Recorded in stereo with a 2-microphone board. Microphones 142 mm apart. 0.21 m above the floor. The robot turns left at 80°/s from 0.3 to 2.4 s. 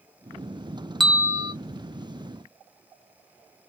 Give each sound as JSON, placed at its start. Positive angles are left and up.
{"t": 1.0, "sound": "a bell", "azimuth_deg": 0, "distance_m": 0.6}